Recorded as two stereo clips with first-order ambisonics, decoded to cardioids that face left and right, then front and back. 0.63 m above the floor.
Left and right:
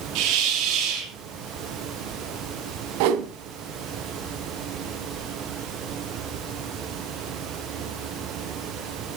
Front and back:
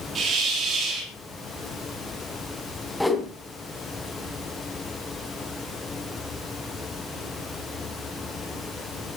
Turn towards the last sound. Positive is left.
turn(degrees=-90)